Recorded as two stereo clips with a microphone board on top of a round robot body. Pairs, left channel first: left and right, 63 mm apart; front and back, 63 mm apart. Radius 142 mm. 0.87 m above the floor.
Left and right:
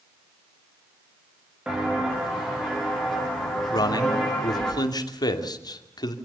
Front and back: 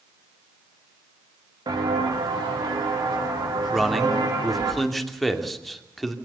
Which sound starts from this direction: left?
A man speaking, at 3.7 s.